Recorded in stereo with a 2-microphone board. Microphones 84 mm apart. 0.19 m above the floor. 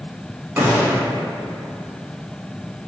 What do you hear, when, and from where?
0.6 s a gunshot: 25° right (ahead or behind), 0.9 m